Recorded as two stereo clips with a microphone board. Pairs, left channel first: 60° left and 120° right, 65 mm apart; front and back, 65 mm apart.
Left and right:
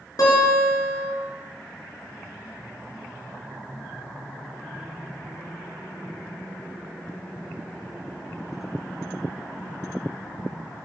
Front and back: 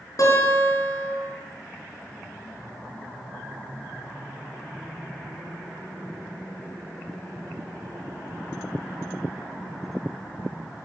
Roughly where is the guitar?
Ahead left.